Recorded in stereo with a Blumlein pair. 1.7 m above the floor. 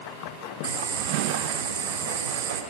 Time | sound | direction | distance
0.6 | boiling | 65° right | 4 m